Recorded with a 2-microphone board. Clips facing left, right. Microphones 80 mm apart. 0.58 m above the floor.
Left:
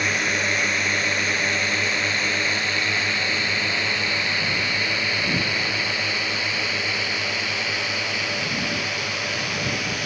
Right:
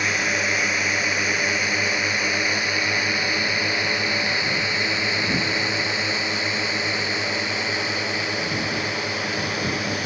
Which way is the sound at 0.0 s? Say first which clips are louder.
Even; 5° right (ahead or behind).